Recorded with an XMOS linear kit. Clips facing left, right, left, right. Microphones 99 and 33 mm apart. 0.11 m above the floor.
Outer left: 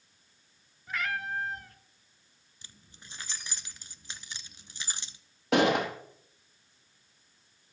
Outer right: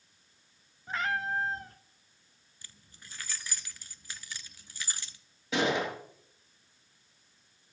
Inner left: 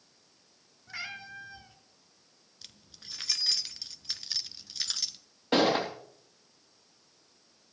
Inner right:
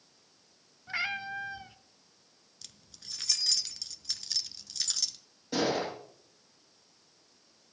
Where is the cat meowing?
30° right (ahead or behind), 0.9 m.